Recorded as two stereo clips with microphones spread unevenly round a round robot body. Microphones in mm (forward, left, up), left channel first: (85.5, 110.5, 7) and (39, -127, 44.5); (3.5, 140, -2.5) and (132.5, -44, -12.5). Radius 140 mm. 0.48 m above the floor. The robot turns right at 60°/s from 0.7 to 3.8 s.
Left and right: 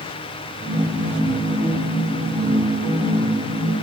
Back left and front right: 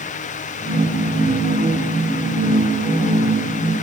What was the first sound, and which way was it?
Only background noise.